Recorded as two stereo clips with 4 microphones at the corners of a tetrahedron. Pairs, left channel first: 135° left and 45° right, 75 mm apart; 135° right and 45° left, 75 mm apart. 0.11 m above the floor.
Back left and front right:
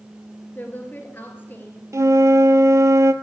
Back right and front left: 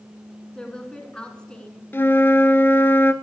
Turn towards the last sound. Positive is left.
turn(degrees=-80)